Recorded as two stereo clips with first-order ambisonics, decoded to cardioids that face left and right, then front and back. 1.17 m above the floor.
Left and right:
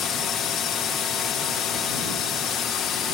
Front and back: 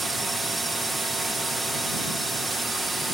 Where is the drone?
100° left.